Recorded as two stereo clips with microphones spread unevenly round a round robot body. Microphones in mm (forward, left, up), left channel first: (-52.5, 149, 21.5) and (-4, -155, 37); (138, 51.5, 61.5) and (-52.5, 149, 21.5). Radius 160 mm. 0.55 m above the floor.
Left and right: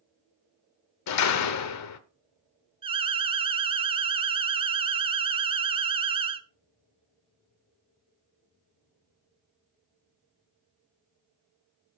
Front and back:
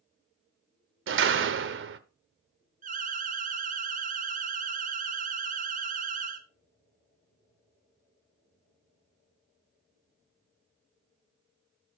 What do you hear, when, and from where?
1.1 s a door slam: 135° left, 1.1 m
2.8 s an alarm: 155° right, 0.8 m